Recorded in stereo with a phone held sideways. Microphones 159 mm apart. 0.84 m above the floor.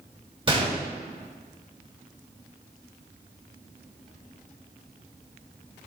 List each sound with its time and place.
0.5 s a gunshot: 35° right (ahead or behind), 2 m